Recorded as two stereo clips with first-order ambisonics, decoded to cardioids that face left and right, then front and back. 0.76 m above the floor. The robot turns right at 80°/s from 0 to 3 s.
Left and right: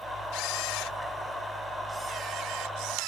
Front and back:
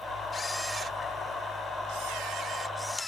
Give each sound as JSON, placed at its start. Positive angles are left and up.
{"t": 0.3, "sound": "a camera shutter", "azimuth_deg": 65}